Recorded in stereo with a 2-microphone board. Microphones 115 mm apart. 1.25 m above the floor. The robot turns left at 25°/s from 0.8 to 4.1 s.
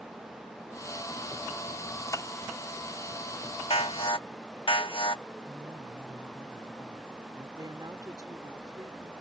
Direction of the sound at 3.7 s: 55° left (ahead or behind).